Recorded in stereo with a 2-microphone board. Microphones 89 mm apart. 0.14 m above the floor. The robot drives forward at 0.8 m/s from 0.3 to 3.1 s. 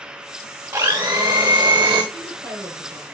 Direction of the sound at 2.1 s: 45° right (ahead or behind).